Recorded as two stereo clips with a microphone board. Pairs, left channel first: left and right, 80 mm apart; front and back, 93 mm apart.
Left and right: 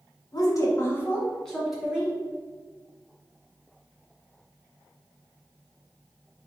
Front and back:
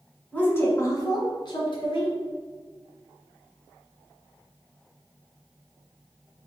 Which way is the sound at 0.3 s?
70° left.